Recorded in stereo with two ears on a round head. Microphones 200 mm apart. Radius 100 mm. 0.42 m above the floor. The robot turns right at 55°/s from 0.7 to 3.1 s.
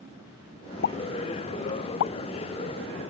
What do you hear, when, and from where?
0.8 s a pop: 45° left (ahead or behind); by 2.1 s 60° left (ahead or behind)